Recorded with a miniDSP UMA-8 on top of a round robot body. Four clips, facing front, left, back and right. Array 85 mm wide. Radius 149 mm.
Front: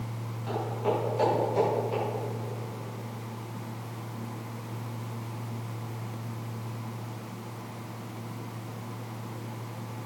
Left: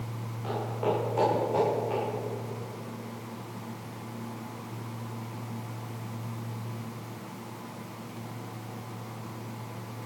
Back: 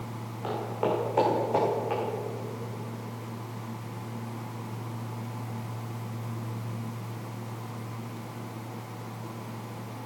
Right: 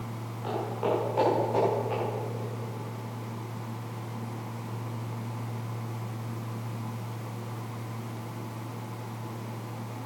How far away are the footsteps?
About 6 m.